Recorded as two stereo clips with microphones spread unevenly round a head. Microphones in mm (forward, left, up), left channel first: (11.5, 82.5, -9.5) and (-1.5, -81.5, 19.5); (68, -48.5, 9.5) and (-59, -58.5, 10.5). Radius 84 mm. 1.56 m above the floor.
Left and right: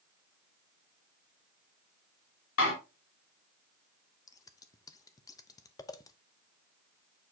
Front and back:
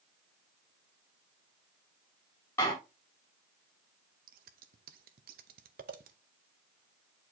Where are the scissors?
155° left, 0.7 m.